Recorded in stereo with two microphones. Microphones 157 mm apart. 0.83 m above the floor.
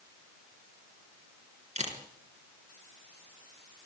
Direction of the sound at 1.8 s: 45° right (ahead or behind).